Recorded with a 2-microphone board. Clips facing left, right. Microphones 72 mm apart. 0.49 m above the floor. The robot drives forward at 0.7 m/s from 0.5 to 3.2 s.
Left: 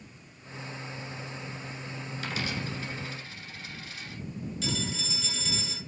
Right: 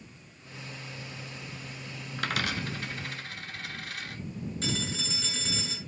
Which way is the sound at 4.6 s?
45° right (ahead or behind).